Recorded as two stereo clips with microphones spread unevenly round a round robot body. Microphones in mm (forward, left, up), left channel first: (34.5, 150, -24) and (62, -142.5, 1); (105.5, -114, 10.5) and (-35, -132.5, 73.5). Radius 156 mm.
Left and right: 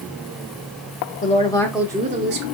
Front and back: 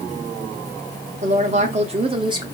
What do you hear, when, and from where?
1.2 s a woman speaking: 135° left, 0.9 m; by 2.5 s 90° right, 0.9 m